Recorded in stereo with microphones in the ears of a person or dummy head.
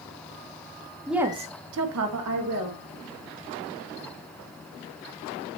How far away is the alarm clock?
I don't hear an alarm clock.